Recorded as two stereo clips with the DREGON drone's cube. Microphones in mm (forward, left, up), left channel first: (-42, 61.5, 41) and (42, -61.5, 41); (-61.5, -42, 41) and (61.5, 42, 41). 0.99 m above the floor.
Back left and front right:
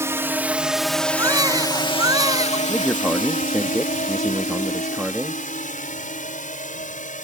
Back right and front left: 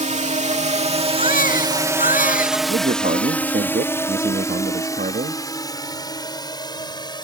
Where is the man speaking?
35° left.